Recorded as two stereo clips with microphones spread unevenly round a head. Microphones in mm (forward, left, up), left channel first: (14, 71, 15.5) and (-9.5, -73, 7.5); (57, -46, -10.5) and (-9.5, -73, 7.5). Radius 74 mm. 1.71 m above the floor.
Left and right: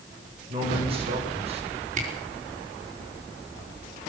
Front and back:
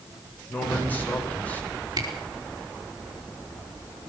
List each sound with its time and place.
0.5 s a man speaking: 45° right, 8 m; by 1.6 s 50° right, 6.5 m
2.0 s a camera shutter: 140° right, 5 m